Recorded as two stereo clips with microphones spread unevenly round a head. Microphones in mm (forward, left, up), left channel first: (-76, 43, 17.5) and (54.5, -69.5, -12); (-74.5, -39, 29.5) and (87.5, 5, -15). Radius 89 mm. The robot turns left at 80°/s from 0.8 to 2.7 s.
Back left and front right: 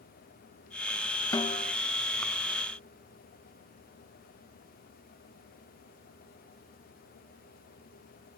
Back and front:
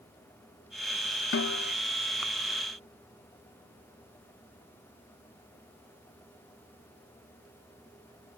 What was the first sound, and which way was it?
A snare drum, 150° right.